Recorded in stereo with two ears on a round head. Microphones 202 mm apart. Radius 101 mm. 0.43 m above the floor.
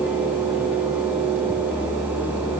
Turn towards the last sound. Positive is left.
No sound to turn to.